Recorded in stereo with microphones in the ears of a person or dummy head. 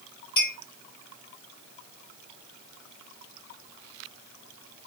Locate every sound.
0.4 s a clink: 35° left (ahead or behind), 1.5 m